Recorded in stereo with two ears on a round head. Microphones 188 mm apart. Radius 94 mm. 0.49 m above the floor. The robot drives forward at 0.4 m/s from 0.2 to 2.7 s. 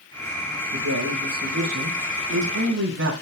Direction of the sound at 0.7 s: 70° right (ahead or behind).